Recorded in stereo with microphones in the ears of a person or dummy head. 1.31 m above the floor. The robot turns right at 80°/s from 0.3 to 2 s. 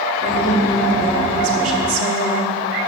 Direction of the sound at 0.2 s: 140° left.